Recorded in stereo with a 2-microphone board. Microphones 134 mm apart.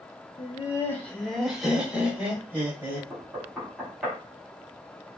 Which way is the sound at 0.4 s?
35° left (ahead or behind).